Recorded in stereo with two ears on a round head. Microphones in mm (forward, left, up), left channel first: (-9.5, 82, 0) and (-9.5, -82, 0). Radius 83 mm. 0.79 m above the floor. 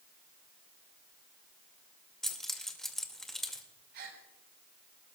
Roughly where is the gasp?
Right.